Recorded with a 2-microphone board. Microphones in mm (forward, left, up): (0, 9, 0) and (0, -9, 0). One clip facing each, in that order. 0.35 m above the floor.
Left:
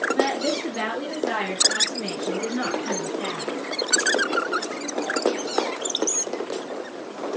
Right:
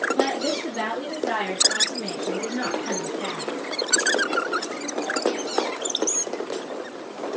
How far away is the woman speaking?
About 7 m.